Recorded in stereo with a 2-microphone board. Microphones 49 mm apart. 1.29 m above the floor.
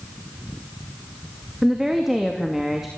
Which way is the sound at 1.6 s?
5° right (ahead or behind).